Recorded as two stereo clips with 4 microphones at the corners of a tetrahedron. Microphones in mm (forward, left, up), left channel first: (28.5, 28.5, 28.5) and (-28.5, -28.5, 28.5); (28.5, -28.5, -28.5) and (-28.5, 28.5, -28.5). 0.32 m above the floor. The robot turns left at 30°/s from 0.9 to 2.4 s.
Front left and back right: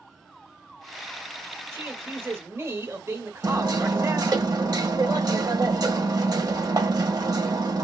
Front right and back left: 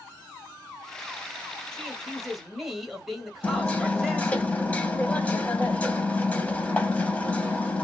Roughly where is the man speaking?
Behind right.